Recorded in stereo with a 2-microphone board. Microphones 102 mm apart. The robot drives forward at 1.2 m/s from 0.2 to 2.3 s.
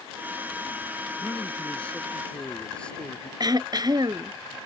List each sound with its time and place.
1.2 s a man speaking: 15° left (ahead or behind); by 3.3 s 10° left (ahead or behind)
3.4 s throat clearing: 45° right (ahead or behind)